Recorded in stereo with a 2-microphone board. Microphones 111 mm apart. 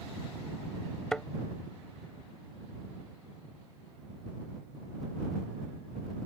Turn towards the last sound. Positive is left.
turn(degrees=5)  # may be behind; listen again after turning